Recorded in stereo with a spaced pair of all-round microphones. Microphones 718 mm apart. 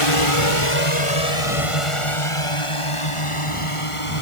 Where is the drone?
45° left (ahead or behind).